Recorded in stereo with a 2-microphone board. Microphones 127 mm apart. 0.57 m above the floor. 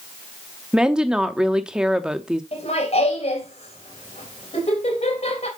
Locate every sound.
0.7 s a woman speaking: 5° right (ahead or behind), 0.8 m
2.5 s laughter: 55° left (ahead or behind), 3.5 m